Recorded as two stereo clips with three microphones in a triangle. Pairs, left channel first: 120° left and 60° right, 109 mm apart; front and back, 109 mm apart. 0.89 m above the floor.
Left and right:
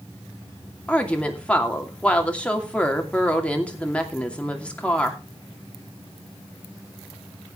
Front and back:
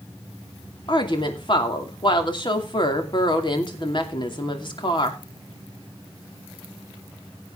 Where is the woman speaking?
40° left, 2.5 m.